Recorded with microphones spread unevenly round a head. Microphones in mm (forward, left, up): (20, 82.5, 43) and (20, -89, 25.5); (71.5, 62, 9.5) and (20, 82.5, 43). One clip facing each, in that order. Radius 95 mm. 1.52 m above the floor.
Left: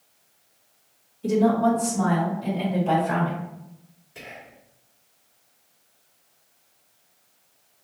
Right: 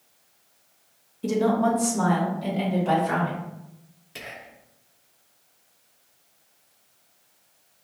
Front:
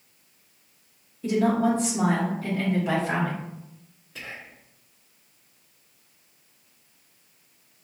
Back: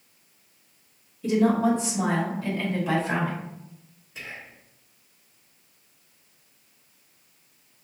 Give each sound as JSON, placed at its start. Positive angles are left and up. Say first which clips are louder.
{"t": 1.2, "sound": "a woman speaking", "louder": "left 2 dB, back 1 dB", "azimuth_deg": -80, "distance_m": 1.2}
{"t": 4.2, "sound": "whispering", "louder": "right 1 dB, even", "azimuth_deg": -80, "distance_m": 0.7}